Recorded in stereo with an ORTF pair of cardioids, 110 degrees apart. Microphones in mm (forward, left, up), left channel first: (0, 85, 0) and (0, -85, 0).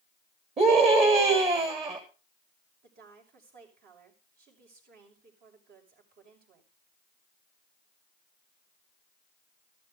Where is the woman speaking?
65° right, 6 m.